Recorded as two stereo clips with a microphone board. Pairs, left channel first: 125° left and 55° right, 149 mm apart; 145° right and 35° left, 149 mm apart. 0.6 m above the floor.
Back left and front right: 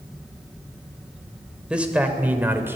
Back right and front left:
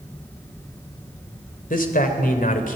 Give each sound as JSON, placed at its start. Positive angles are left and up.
{"t": 1.7, "sound": "a man speaking", "azimuth_deg": -140, "distance_m": 3.0}